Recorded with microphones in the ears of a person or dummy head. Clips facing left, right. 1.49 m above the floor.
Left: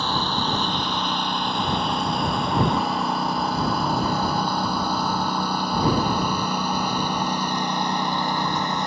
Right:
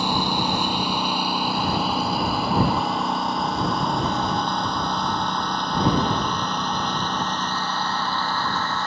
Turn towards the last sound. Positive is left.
turn(degrees=10)  # may be behind; listen again after turning